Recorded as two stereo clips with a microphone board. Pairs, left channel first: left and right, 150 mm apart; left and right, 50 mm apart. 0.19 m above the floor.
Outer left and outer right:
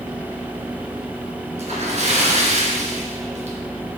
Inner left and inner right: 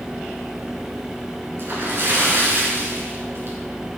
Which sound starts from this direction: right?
A splash, at 1.6 s.